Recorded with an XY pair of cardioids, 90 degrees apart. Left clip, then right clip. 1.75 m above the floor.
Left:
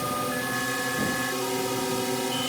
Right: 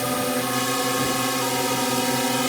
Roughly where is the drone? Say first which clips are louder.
Right 4 dB; ahead right.